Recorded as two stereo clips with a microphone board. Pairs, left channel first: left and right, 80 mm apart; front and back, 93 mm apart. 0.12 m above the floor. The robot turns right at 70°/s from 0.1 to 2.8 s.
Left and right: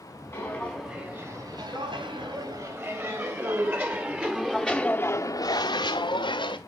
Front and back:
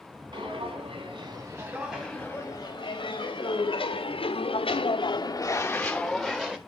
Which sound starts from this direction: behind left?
Footsteps, at 0.3 s.